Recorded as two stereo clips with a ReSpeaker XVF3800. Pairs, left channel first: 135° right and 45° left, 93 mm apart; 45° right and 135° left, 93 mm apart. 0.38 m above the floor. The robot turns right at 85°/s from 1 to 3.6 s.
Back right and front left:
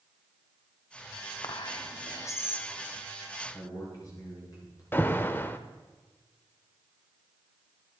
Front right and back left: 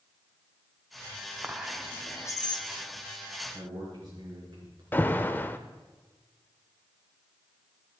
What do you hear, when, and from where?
1.4 s whispering: 160° right, 1.2 m; by 2.7 s 55° right, 1.2 m
3.5 s a man speaking: 175° left, 5 m; by 4.8 s straight behind, 5 m
4.9 s an alarm: 90° right, 0.6 m